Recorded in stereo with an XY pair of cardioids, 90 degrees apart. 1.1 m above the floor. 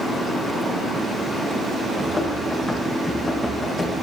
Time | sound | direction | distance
2.0 | running footsteps | 30° left | 4 m